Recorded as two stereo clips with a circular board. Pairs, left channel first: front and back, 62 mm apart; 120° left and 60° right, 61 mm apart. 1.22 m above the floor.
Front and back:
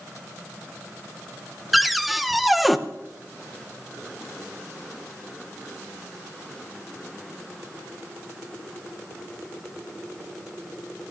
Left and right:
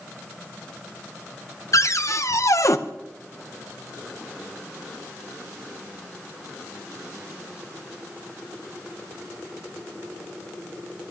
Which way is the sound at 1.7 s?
90° left.